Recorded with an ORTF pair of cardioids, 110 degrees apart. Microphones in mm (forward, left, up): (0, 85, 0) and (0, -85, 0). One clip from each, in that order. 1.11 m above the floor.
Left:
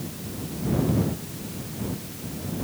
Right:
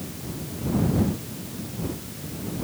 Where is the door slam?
I don't hear a door slam.